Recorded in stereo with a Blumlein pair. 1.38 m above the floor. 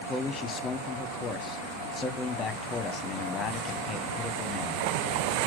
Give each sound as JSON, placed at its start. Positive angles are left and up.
{"t": 0.1, "sound": "a man speaking", "azimuth_deg": 20, "distance_m": 1.0}